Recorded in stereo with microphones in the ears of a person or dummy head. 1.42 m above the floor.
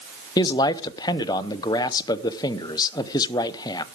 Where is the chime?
No chime in this recording.